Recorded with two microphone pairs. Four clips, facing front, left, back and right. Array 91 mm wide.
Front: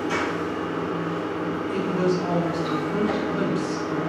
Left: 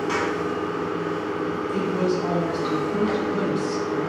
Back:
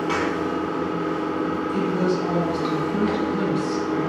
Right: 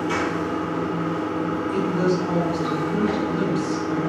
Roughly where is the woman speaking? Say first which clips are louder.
Right 2 dB, even; ahead left.